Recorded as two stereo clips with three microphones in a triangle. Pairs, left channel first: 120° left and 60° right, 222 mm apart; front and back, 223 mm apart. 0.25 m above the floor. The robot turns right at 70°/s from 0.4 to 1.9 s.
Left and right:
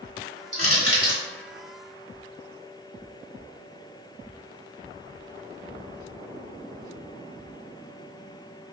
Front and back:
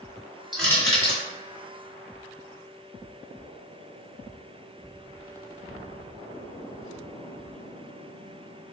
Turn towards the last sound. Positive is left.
turn(degrees=5)